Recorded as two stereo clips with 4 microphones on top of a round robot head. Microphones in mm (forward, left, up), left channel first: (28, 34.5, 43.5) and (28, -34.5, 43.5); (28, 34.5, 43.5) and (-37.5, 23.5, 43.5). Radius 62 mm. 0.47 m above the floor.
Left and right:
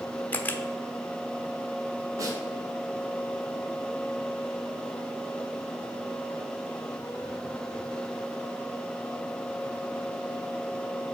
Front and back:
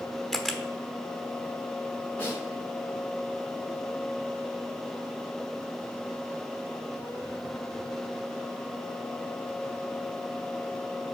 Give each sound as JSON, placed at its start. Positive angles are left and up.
{"t": 0.3, "sound": "a camera shutter", "azimuth_deg": 90, "distance_m": 0.9}
{"t": 2.2, "sound": "a snare drum", "azimuth_deg": -60, "distance_m": 2.0}